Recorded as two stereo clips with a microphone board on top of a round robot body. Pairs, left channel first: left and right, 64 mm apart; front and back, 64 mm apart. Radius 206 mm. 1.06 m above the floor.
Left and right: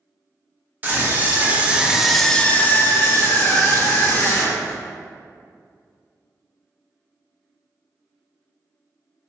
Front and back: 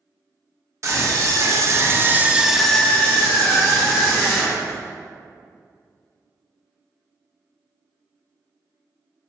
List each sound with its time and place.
0.8 s a scream: 145° right, 1.0 m; by 4.8 s 45° left, 1.3 m